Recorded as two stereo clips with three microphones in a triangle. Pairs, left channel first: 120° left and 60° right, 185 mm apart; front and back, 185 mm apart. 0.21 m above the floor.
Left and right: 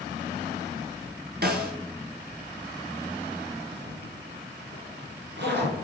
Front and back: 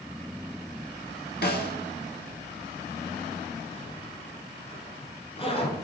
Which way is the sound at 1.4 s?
25° right.